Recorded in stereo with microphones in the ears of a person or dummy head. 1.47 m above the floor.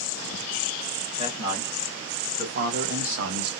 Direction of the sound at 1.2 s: 30° right (ahead or behind).